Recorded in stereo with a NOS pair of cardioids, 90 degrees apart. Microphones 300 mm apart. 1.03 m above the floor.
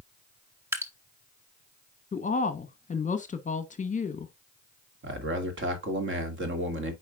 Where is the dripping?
10° right, 1.4 m.